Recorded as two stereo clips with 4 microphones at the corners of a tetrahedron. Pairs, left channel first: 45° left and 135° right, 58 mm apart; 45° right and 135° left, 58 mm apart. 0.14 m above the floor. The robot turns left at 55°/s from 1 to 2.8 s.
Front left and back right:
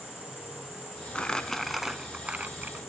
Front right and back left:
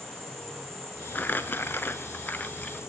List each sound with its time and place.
0.0 s an insect: 90° left, 5.5 m; by 2.9 s 5° right, 5.5 m
1.1 s crumpling: 15° right, 0.6 m; by 2.8 s 105° right, 0.6 m